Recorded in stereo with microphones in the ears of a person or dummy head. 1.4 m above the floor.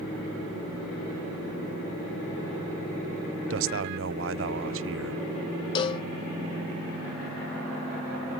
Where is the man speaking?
60° right (ahead or behind).